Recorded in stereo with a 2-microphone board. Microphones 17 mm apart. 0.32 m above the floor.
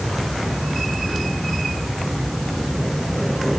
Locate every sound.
Only background noise.